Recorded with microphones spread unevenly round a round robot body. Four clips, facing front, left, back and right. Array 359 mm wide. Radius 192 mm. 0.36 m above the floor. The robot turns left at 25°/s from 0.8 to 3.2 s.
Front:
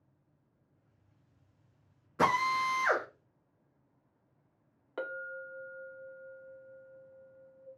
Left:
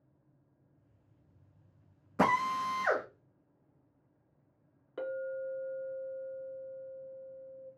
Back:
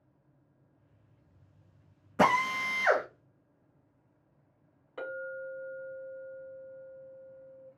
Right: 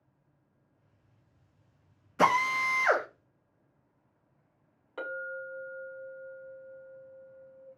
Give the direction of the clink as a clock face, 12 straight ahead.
11 o'clock.